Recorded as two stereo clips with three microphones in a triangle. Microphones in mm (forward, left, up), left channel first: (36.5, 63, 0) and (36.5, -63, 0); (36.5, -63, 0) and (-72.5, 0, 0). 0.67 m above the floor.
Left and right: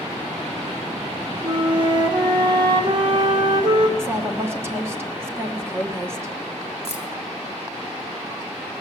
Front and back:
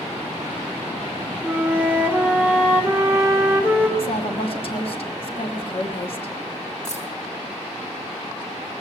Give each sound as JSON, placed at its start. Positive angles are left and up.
{"t": 1.4, "sound": "a flute", "azimuth_deg": -135, "distance_m": 1.4}
{"t": 4.0, "sound": "a woman speaking", "azimuth_deg": -25, "distance_m": 1.3}
{"t": 6.8, "sound": "keys jangling", "azimuth_deg": -55, "distance_m": 2.0}